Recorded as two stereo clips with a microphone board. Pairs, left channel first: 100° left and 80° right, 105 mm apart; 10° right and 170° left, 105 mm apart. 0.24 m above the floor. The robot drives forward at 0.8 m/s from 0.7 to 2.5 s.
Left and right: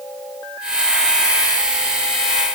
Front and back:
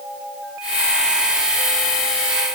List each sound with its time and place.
Only background noise.